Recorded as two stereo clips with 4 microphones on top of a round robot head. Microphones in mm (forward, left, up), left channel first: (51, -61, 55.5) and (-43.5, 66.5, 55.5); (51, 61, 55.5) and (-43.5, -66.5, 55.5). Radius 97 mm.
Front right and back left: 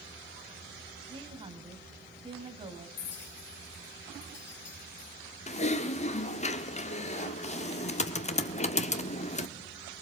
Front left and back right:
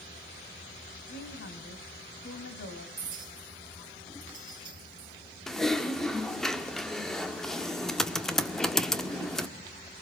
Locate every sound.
1.1 s a woman speaking: 65° left, 3.5 m
3.0 s a clink: 65° right, 4 m
5.5 s typing on a keyboard: 35° right, 1.5 m